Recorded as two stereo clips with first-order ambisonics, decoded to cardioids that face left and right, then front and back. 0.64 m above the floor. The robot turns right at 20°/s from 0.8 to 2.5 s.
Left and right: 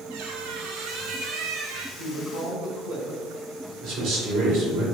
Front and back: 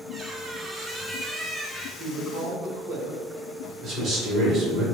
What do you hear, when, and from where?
0.1 s a squeak: 100° right, 0.6 m; by 1.9 s 80° right, 0.6 m
2.0 s a woman speaking: 155° right, 1.7 m; by 3.2 s 145° right, 1.7 m
3.8 s a man speaking: 120° right, 1.9 m